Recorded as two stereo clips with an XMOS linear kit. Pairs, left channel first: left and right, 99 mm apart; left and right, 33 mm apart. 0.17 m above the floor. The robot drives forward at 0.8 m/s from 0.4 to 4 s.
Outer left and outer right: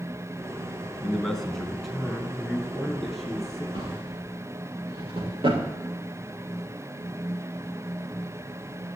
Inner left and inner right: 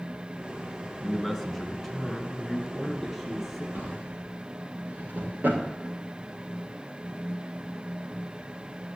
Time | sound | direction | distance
1.0 | a man speaking | 5° left (ahead or behind) | 1.4 m
3.7 | a drawer | 70° right (ahead or behind) | 5.5 m